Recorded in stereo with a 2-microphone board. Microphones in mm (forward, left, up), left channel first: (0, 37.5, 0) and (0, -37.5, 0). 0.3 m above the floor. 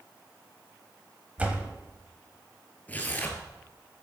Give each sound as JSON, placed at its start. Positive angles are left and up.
{"t": 1.4, "sound": "a door slam", "side_deg": -20, "distance_m": 1.4}
{"t": 2.9, "sound": "tearing paper", "side_deg": 20, "distance_m": 1.8}